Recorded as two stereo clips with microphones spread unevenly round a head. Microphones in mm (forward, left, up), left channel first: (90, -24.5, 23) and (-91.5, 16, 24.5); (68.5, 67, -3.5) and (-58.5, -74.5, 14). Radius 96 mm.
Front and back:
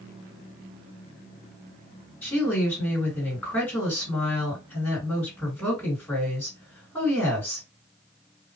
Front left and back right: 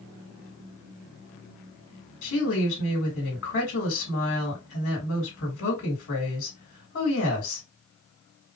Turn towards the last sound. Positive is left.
turn(degrees=70)